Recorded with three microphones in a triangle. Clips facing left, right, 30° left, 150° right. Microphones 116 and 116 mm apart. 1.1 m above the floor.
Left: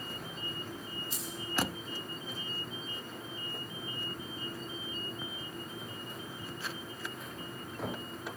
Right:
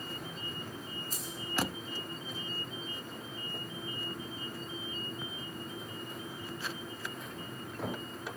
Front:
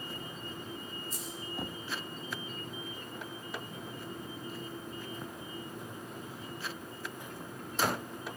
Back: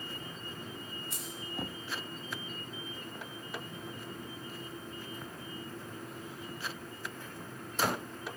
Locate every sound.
1.1 s keys jangling: 135° right, 4 m